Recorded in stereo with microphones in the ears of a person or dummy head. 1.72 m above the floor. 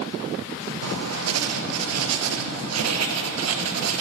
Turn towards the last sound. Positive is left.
turn(degrees=-85)